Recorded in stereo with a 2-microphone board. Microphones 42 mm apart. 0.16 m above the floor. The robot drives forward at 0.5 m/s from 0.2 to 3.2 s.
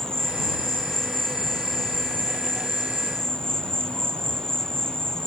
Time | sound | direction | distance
0.0 | an insect | 65° right (ahead or behind) | ?